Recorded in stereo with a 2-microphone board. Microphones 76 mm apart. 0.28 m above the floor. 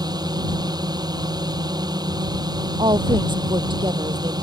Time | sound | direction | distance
0.0 | a drone | 60° right (ahead or behind) | ?
2.8 | a woman speaking | 80° right | ?